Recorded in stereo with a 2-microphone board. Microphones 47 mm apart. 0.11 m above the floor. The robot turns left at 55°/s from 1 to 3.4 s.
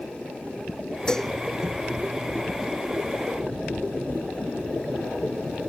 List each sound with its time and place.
1.1 s dishes clattering: 20° left (ahead or behind); by 1.3 s 5° left (ahead or behind)